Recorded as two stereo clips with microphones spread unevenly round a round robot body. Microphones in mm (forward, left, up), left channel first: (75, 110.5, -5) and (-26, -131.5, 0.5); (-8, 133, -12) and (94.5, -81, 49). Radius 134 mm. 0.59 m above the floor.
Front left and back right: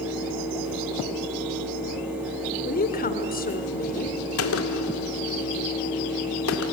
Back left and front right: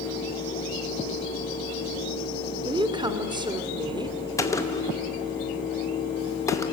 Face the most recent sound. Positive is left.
turn(degrees=50)